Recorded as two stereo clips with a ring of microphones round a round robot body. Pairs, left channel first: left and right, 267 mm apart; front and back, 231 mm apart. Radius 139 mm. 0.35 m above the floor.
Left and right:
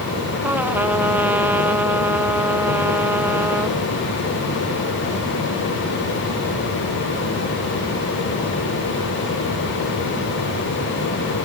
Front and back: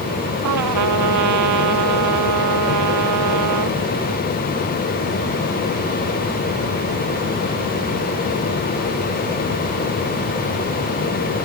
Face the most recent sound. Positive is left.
turn(degrees=-175)